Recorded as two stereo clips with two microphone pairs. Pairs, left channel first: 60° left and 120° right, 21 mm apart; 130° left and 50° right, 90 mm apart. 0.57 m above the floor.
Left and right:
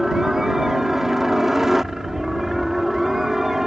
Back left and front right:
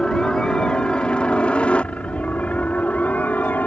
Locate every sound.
0.0 s a helicopter: 160° right; by 3.7 s 175° right